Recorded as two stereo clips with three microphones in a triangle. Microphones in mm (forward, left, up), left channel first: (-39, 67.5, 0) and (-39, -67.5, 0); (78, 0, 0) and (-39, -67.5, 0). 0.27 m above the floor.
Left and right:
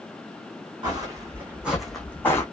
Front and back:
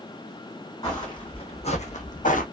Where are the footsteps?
30° right, 1.3 m; by 2.4 s 25° left, 1.0 m.